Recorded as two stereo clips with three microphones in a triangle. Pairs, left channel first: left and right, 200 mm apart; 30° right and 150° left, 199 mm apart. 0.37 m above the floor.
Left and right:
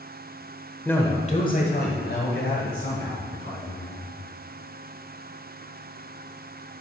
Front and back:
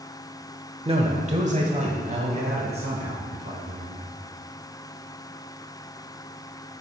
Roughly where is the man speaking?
Behind.